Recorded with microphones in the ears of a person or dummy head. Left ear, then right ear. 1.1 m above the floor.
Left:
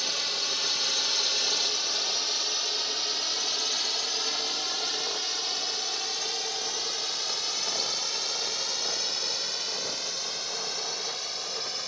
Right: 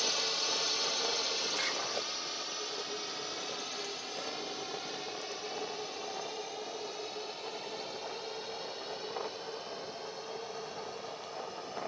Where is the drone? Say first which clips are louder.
Left 4 dB; 15° left (ahead or behind); by 11.9 s 75° left (ahead or behind).